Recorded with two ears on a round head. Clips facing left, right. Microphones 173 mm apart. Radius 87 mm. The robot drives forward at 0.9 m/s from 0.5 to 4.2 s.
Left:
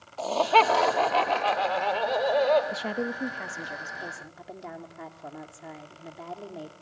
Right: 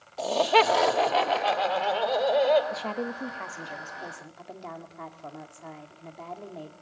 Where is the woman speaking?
15° left (ahead or behind), 0.9 m; by 6.7 s 5° left (ahead or behind), 1.9 m.